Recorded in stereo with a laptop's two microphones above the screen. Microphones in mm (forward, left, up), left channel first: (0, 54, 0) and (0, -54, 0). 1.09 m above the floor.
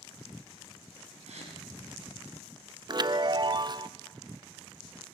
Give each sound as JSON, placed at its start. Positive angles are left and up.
{"t": 1.3, "sound": "a gasp", "side_deg": -85, "distance_m": 5.5}
{"t": 2.9, "sound": "a chime", "side_deg": -40, "distance_m": 0.6}